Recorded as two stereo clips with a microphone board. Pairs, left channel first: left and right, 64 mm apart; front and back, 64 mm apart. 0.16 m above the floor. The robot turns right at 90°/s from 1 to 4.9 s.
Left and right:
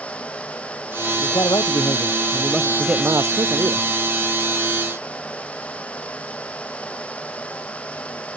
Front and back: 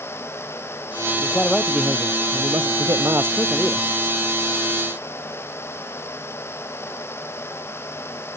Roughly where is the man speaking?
Ahead left.